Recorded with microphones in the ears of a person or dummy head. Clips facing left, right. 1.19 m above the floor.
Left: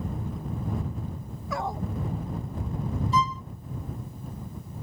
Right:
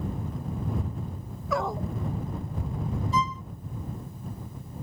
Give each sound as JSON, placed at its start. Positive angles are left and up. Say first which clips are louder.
{"t": 1.5, "sound": "a dog barking", "louder": "right 3 dB", "side_deg": -65}
{"t": 3.1, "sound": "a violin", "louder": "left 3 dB", "side_deg": 50}